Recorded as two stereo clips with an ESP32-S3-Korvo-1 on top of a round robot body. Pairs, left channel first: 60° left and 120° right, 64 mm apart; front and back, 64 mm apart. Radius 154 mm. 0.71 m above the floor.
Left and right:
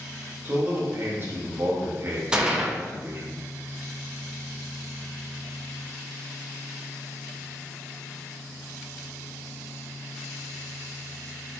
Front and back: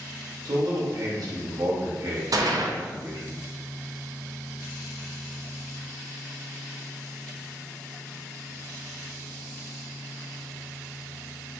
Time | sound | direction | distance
0.5 | a man speaking | 175° right | 1.2 m
2.3 | a gunshot | 165° left | 0.8 m